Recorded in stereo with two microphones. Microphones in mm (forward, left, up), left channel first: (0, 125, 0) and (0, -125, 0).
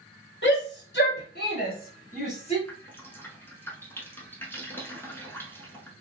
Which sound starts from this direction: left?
A shout, at 0.4 s.